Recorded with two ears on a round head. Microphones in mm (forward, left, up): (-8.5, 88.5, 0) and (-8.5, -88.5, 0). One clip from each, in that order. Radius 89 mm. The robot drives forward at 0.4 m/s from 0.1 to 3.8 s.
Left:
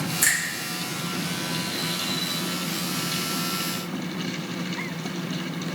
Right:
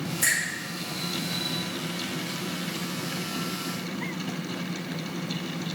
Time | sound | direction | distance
0.2 | a finger snap | 20° left (ahead or behind) | 2 m